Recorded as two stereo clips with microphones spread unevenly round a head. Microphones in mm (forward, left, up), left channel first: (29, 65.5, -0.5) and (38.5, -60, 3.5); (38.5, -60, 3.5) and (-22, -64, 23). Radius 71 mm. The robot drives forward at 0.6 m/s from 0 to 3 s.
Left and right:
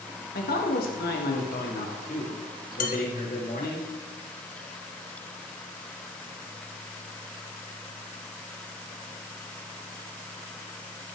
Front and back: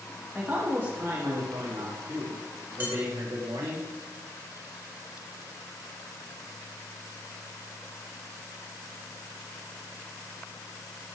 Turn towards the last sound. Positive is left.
turn(degrees=120)